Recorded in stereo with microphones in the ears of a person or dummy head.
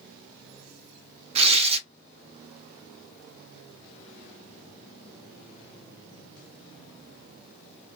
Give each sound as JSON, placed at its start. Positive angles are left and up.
{"t": 1.4, "sound": "tearing paper", "side_deg": -25, "distance_m": 0.6}